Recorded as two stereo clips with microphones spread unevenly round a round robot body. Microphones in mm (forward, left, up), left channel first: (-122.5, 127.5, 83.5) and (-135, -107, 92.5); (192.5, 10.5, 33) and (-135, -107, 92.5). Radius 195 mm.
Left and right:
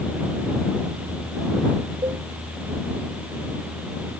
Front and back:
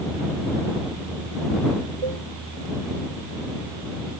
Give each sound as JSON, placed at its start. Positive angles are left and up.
{"t": 2.0, "sound": "a cowbell", "azimuth_deg": -165}